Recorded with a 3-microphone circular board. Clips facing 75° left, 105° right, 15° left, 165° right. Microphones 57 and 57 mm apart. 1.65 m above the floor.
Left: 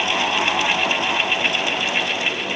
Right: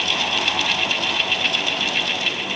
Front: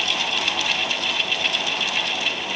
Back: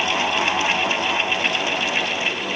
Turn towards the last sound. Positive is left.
No sound to turn to.